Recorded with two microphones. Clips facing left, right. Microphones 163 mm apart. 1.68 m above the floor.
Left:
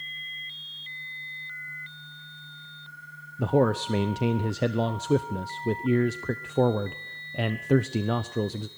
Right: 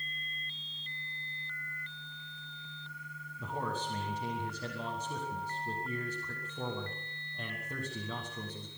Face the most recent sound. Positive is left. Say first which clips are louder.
# left 15 dB
turn(degrees=80)